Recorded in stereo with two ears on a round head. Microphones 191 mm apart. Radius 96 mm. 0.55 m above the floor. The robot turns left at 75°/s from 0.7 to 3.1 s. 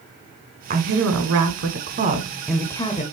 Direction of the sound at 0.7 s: 40° right.